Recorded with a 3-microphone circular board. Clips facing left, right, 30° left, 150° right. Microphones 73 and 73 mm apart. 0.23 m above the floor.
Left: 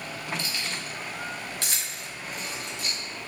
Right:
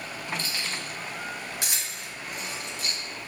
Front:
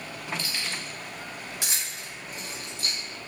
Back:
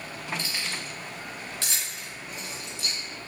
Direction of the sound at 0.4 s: 105° right.